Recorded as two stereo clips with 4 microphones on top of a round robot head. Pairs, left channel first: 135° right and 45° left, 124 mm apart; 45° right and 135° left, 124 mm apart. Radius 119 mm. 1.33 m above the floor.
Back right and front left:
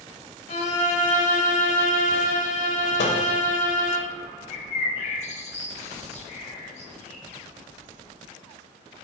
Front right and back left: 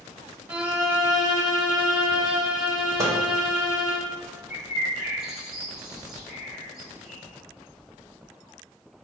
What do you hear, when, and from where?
0.5 s a violin: 150° right, 0.8 m
3.0 s a microwave: 160° right, 0.6 m
4.5 s a bird: 140° right, 1.0 m